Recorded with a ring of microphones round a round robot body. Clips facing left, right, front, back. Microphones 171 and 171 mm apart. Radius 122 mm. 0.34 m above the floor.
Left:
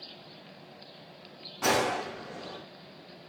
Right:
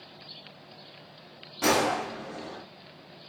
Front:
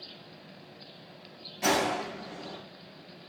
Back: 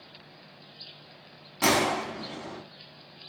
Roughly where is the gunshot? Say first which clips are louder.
Right 2 dB, back 2 dB; behind.